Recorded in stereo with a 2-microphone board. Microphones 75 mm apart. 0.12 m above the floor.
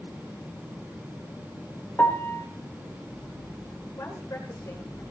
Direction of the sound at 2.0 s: 25° left (ahead or behind).